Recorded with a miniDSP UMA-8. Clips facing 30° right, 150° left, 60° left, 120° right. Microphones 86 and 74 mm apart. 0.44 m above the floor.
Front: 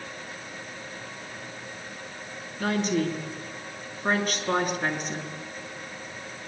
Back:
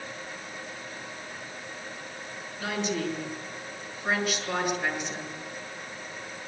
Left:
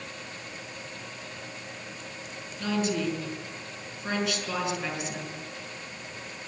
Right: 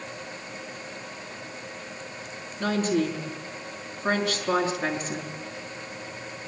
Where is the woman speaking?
75° right, 6 m.